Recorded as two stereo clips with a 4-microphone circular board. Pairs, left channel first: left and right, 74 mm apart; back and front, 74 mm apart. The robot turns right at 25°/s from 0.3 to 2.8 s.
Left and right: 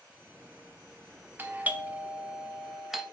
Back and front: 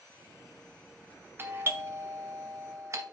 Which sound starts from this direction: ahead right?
A doorbell, at 1.4 s.